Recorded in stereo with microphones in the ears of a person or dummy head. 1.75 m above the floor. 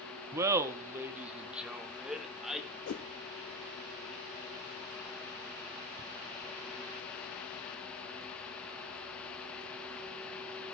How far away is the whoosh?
About 1.1 m.